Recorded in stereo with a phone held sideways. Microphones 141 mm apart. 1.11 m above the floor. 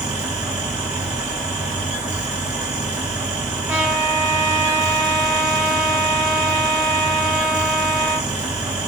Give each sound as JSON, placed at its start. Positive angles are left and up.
{"t": 0.0, "sound": "a fan", "side_deg": -5, "distance_m": 2.5}
{"t": 3.7, "sound": "a trumpet", "side_deg": -10, "distance_m": 2.5}